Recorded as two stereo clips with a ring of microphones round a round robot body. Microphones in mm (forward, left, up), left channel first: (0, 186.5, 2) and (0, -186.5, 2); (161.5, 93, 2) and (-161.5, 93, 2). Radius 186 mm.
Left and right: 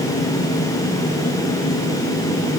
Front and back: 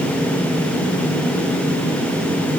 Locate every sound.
Only background noise.